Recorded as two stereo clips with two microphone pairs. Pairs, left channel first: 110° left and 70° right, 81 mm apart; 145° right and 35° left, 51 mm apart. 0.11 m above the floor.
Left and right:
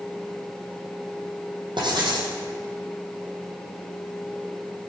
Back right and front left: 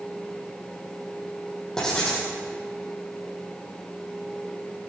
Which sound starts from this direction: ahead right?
Writing, at 1.8 s.